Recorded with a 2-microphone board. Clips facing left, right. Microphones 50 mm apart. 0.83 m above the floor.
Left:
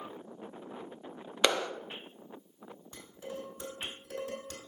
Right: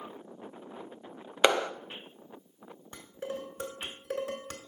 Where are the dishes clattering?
60° right (ahead or behind), 1.6 m.